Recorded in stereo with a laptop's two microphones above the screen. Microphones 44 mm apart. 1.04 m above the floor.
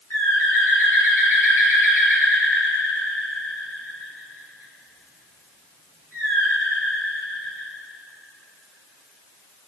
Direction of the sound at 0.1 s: 70° left (ahead or behind).